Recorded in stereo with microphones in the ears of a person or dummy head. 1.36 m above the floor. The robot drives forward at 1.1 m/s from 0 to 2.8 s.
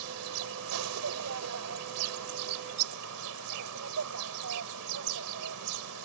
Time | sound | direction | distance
0.0 | an insect | 80° right | ?